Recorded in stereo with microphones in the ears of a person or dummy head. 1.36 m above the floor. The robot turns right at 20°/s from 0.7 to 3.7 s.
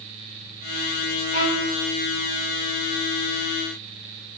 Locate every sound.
1.3 s a violin: 50° right (ahead or behind), 1.6 m; by 1.7 s 55° right (ahead or behind), 1.6 m